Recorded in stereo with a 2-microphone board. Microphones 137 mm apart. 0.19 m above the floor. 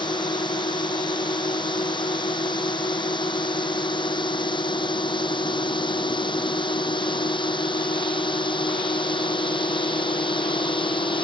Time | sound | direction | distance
0.0 | a drone | 35° left (ahead or behind) | ?